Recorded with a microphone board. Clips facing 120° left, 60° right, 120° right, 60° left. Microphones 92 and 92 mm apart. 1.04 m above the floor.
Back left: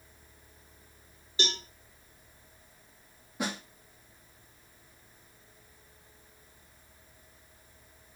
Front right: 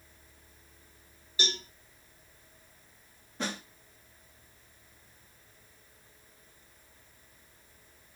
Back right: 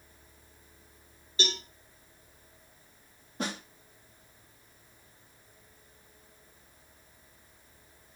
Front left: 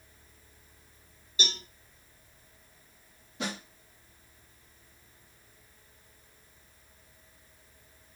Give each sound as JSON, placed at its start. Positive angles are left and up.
{"t": 1.4, "sound": "a cowbell", "azimuth_deg": -175, "distance_m": 2.0}
{"t": 3.4, "sound": "a snare drum", "azimuth_deg": -160, "distance_m": 1.3}